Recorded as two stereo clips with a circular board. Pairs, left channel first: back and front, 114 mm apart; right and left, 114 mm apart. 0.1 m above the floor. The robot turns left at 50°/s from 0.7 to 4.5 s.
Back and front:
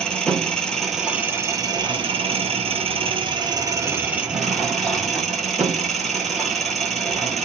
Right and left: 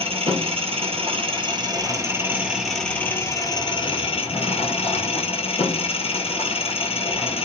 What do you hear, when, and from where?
0.0 s an engine running: 100° left, 1.1 m; by 7.5 s 90° right, 1.1 m